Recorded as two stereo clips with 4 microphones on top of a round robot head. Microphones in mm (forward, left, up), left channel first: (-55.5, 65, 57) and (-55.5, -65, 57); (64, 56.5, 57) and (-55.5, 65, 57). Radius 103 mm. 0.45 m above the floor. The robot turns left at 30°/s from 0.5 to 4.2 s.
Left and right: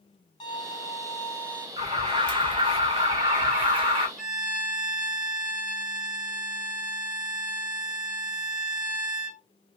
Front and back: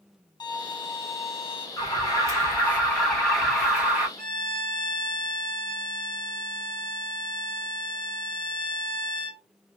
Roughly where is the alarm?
Ahead right.